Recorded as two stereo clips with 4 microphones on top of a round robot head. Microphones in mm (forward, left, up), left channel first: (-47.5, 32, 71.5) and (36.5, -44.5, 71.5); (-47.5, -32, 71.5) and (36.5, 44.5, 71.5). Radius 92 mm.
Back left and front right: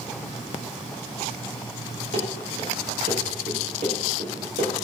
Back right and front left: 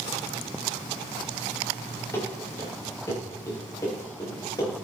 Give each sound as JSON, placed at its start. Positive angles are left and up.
{"t": 2.1, "sound": "running footsteps", "azimuth_deg": -70, "distance_m": 7.0}